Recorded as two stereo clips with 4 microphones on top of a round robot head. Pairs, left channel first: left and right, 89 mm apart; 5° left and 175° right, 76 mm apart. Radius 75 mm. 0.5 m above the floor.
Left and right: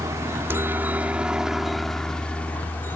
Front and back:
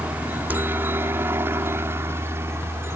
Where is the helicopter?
120° right; by 3.0 s 150° left.